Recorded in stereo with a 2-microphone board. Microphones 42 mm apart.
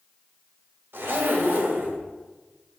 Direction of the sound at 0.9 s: 65° right (ahead or behind).